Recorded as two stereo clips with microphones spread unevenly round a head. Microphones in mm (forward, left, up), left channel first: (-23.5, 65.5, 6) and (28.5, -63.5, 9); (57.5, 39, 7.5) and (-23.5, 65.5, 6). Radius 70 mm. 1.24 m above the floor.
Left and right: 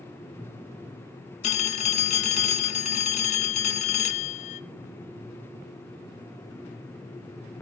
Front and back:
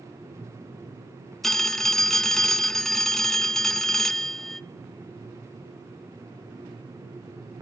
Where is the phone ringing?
70° left, 0.9 m.